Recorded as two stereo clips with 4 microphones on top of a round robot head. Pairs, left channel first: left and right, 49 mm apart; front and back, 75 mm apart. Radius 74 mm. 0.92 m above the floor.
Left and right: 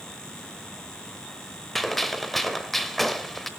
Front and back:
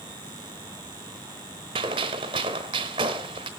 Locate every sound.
1.8 s a gunshot: 175° left, 1.0 m